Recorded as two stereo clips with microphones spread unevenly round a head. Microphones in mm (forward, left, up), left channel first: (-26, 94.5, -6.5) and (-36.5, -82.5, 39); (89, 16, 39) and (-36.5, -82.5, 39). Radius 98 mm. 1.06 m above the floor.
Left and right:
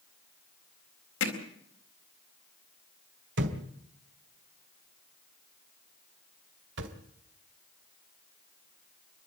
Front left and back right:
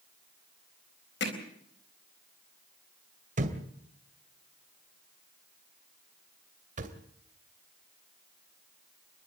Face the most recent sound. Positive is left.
turn(degrees=-100)